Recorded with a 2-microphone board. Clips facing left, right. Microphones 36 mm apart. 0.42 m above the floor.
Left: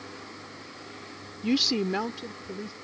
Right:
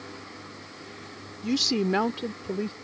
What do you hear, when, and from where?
1.4 s a woman speaking: 30° left (ahead or behind); by 2.7 s 55° right (ahead or behind)